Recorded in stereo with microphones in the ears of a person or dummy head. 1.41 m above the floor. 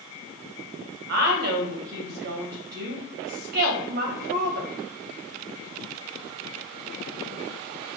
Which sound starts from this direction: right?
A woman speaking, at 1.1 s.